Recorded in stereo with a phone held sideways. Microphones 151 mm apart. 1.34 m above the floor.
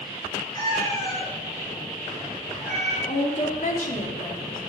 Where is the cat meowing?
25° left (ahead or behind), 7 m; by 3.0 s 10° left (ahead or behind), 5 m.